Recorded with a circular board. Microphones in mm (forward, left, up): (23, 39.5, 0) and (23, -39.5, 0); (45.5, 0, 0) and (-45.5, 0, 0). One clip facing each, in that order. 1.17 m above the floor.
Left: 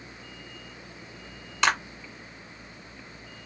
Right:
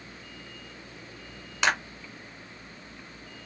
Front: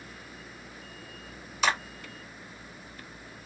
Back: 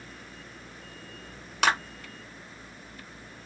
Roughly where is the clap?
Behind.